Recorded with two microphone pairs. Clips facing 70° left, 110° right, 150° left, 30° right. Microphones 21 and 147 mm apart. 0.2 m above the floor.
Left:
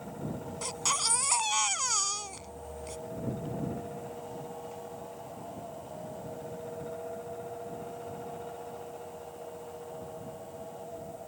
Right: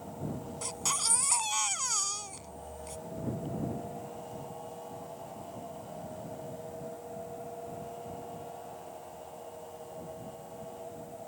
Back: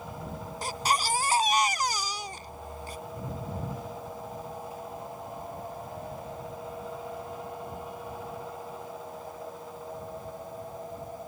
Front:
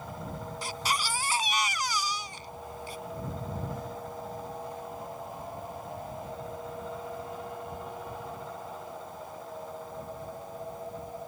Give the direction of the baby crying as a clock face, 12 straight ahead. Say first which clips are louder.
Left 3 dB, back 5 dB; 7 o'clock.